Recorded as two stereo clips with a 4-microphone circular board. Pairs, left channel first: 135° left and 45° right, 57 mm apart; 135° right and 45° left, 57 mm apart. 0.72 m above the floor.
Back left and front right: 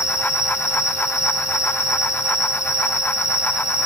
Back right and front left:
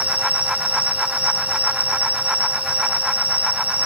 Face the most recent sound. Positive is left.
turn(degrees=105)